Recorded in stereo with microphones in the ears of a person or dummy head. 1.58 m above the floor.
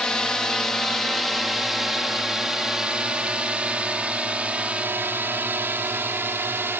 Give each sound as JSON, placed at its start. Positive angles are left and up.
{"t": 0.0, "sound": "a drone", "side_deg": 5}